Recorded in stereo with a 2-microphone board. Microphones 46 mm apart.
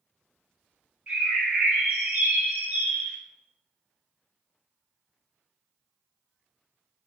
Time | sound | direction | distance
1.1 | a bird | 35° right (ahead or behind) | 1.3 m